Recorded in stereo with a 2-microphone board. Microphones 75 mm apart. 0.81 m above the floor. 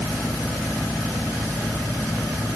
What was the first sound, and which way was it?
Only background noise.